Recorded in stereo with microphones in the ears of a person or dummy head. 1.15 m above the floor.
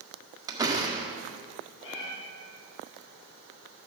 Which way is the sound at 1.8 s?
70° left (ahead or behind).